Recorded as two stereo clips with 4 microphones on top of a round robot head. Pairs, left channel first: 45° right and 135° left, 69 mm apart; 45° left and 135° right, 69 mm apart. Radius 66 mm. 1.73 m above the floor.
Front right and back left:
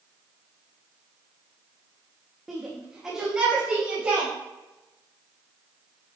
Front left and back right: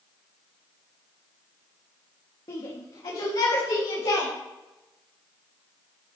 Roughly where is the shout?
Ahead left.